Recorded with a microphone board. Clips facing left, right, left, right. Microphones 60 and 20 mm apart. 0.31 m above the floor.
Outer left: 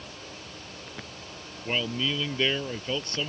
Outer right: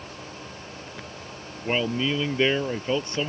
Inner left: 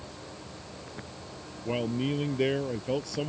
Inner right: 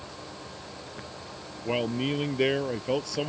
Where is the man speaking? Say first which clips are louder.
Outer right 4 dB, inner right 2 dB; 20° right (ahead or behind).